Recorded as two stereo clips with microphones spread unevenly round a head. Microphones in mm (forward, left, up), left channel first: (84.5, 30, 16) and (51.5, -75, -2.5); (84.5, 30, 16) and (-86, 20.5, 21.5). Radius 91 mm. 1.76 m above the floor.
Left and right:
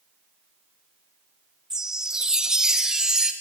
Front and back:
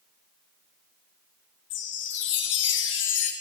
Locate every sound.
1.7 s a chime: 20° right, 0.8 m